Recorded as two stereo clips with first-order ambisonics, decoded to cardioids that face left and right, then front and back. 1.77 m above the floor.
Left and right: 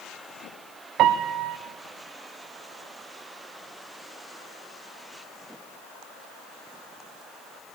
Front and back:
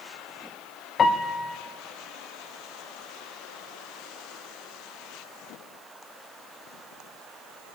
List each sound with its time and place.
1.0 s a piano: 65° right, 0.7 m